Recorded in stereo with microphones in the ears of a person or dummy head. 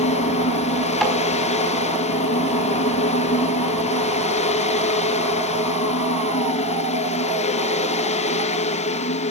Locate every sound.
0.0 s a fan: 35° left (ahead or behind), 0.8 m
1.0 s tapping: 5° left (ahead or behind), 4.5 m